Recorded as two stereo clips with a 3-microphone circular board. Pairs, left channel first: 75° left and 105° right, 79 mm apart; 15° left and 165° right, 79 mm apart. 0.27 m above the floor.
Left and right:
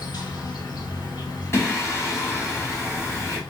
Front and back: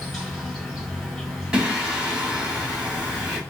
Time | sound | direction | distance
0.0 | an insect | 100° left | 1.2 m
1.5 | singing | 120° left | 1.2 m